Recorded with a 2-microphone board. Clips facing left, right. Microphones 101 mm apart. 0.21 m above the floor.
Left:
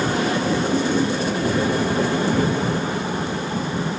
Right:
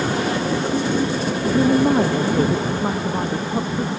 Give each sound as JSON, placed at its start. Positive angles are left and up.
{"t": 1.4, "sound": "a woman speaking", "side_deg": -40}